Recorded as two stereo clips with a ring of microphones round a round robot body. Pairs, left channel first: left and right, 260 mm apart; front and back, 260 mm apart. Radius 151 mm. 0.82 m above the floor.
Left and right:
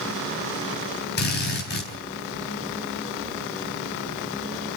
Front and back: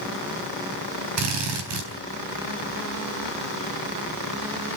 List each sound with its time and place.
1.2 s a drill: 145° left, 4 m